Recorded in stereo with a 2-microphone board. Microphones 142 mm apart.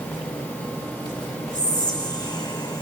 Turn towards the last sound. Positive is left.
turn(degrees=30)  # may be behind; listen again after turning